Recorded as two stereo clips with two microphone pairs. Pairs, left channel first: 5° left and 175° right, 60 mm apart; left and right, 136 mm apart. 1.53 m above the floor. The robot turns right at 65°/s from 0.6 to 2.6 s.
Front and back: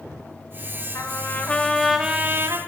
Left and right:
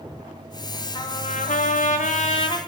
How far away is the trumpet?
About 1.0 m.